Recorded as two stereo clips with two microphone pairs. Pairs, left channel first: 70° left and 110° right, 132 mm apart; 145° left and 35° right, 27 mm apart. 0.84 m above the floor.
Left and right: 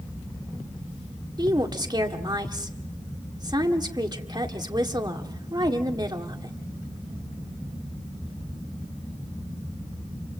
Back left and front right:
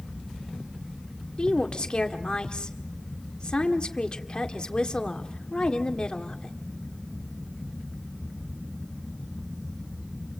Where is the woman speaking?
165° right, 1.9 m.